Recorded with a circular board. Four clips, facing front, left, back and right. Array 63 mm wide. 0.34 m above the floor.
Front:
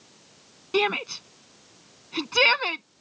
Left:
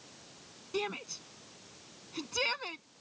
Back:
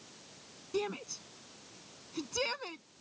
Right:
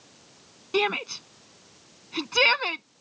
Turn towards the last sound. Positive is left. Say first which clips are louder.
# right 11 dB, front 11 dB
turn(degrees=-35)